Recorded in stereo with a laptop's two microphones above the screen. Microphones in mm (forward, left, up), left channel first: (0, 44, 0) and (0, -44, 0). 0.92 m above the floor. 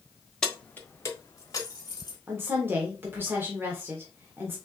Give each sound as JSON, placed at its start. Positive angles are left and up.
{"t": 0.4, "sound": "keys jangling", "side_deg": 10, "distance_m": 0.8}
{"t": 2.3, "sound": "a woman speaking", "side_deg": -25, "distance_m": 1.1}